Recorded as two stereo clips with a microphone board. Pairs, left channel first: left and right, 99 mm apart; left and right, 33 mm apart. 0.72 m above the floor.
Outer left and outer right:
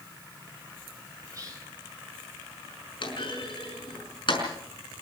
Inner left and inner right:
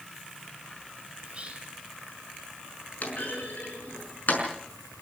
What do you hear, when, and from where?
1.2 s whispering: 35° right (ahead or behind), 3.5 m
3.0 s a clunk: 55° left (ahead or behind), 5.5 m